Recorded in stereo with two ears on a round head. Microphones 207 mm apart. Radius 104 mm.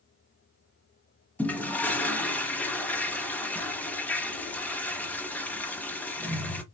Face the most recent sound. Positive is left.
turn(degrees=5)  # may be behind; listen again after turning